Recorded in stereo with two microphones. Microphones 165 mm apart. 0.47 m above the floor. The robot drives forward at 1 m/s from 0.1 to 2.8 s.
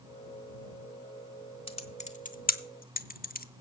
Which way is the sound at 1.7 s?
35° left (ahead or behind).